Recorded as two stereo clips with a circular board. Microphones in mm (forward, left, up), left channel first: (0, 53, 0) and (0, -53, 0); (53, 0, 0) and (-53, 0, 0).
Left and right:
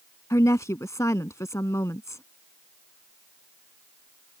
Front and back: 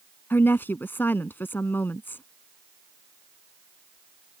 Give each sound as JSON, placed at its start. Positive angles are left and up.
{"t": 0.3, "sound": "a woman speaking", "azimuth_deg": 55}